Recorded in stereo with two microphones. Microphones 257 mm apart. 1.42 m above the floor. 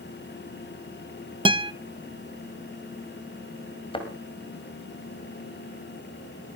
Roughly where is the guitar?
Centre.